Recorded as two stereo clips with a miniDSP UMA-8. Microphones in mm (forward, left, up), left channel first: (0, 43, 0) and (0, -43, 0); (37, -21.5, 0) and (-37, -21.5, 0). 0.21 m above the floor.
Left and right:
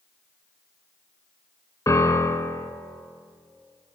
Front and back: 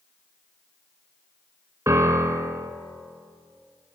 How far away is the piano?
About 0.5 m.